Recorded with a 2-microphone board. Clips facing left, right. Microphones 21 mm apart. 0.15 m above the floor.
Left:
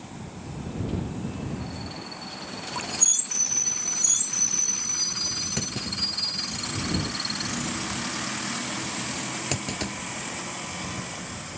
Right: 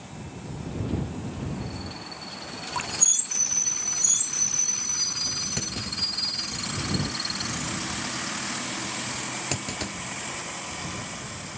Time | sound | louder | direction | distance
2.8 | dripping | right 2 dB | 20° right (ahead or behind) | ?
5.6 | a clunk | even | centre (ahead or behind) | ?